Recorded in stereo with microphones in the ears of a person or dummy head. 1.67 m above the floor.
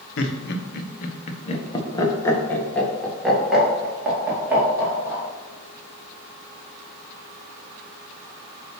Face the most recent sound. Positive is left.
turn(degrees=-10)  # may be behind; listen again after turning